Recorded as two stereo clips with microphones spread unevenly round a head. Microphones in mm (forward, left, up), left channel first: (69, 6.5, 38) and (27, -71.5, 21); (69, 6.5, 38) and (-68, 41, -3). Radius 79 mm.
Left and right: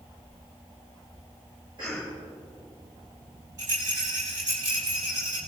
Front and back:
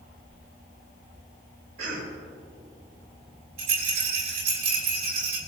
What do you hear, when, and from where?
1.8 s a cough: 175° left, 5 m
3.6 s a rattle: straight behind, 4.5 m